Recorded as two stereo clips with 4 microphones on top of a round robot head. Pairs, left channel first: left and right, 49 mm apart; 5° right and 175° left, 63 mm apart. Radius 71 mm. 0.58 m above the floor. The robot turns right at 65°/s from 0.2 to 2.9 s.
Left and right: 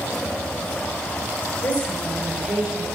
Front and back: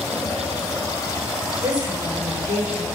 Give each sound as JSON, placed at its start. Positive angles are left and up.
{"t": 1.6, "sound": "a woman speaking", "azimuth_deg": 145, "distance_m": 8.0}